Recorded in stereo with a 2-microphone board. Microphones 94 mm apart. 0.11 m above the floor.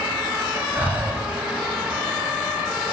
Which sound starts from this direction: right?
Breathing, at 0.7 s.